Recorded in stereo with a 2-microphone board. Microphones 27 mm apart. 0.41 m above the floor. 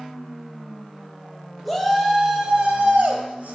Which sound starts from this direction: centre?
A shout, at 1.6 s.